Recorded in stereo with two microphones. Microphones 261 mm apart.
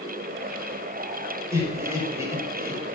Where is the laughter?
10° right (ahead or behind), 6 m.